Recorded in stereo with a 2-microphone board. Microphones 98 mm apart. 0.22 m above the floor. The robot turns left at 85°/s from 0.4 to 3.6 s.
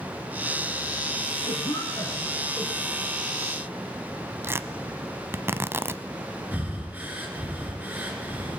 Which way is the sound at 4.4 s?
25° right (ahead or behind).